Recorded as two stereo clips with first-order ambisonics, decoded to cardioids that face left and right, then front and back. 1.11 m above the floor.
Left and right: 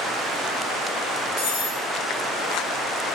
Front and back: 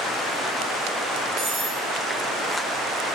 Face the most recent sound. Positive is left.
turn(degrees=115)